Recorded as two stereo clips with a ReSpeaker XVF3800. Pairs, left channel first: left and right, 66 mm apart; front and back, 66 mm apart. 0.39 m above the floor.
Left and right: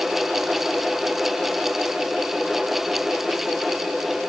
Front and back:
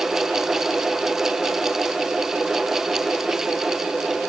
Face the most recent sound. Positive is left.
No sound to turn to.